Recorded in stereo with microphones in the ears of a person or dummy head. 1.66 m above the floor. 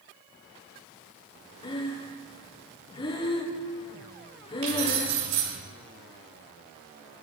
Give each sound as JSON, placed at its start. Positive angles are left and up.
{"t": 1.6, "sound": "breathing", "side_deg": 25, "distance_m": 0.7}
{"t": 4.6, "sound": "keys jangling", "side_deg": -50, "distance_m": 3.0}